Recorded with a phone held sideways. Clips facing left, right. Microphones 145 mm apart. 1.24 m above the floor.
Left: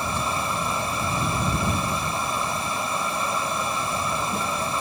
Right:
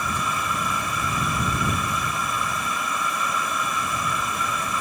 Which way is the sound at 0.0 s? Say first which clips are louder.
Left 1 dB; 30° left (ahead or behind).